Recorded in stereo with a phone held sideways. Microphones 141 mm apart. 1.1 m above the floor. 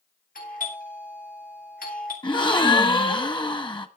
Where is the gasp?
35° left (ahead or behind), 1.1 m.